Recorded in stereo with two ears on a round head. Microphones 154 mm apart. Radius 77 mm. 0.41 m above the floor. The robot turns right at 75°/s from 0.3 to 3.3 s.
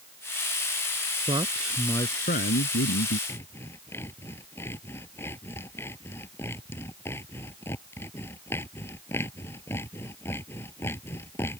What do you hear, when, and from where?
1.3 s a man speaking: 30° right; by 3.2 s 115° left
3.3 s sawing: 15° left (ahead or behind)